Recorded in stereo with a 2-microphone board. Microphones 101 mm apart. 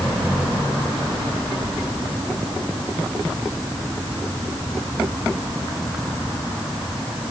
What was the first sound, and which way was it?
Only background noise.